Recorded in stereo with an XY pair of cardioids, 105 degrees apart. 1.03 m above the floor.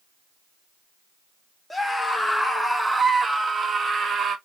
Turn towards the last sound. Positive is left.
turn(degrees=-50)